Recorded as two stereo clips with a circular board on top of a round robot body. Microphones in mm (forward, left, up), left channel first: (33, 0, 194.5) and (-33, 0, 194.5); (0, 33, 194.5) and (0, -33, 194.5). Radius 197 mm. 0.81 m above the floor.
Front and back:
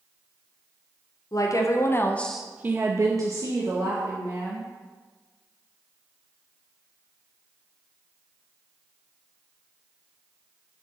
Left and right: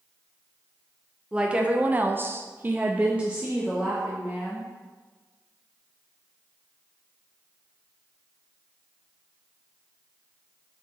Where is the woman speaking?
15° right, 0.7 m; by 4.7 s 170° right, 1.3 m.